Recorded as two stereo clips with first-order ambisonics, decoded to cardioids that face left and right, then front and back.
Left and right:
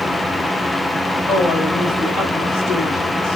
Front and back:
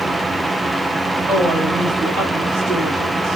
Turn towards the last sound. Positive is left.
turn(degrees=100)